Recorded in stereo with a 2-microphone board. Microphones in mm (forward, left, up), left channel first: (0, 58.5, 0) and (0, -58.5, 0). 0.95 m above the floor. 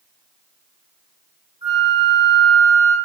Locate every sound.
1.6 s a flute: 50° right (ahead or behind), 1.7 m